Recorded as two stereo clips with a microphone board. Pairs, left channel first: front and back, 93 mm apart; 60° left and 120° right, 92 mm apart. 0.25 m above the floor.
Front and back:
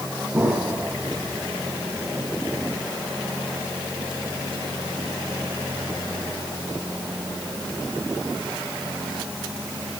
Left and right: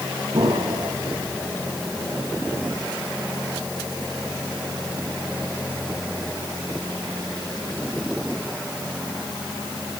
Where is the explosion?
115° right, 2.5 m.